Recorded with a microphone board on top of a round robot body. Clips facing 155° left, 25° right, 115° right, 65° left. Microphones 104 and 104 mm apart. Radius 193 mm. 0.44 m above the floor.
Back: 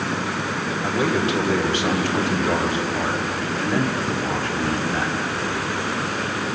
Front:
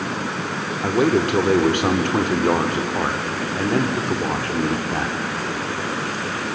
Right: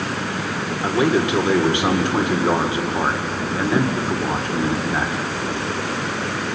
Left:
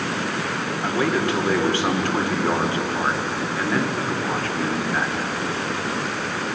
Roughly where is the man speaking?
Ahead right.